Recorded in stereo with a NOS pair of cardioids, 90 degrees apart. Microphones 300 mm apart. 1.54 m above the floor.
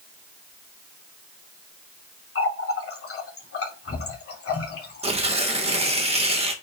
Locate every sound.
2.4 s a running tap: 50° left, 3 m
5.0 s tearing paper: 20° right, 1.7 m